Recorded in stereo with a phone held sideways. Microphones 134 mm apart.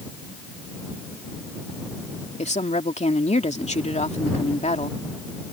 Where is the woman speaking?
55° left (ahead or behind).